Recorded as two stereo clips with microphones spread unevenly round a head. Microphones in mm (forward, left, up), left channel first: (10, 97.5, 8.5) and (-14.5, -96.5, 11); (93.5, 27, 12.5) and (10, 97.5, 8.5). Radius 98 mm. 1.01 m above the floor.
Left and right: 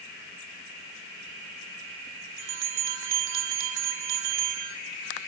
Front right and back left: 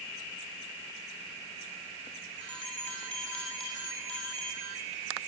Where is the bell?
125° right, 3 m.